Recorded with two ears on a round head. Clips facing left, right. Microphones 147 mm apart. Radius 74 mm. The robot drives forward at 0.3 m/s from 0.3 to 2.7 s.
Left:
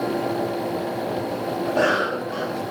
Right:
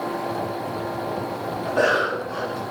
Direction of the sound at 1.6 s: 80° left.